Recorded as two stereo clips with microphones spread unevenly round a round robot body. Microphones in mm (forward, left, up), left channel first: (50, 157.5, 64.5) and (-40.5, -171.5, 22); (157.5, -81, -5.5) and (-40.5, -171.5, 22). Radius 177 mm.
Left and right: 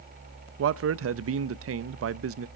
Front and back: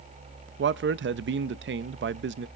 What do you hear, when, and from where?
0.6 s a man speaking: 130° right, 0.5 m